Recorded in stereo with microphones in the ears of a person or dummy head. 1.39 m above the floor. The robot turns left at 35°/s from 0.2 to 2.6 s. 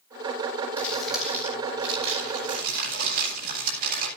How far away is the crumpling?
About 8.5 m.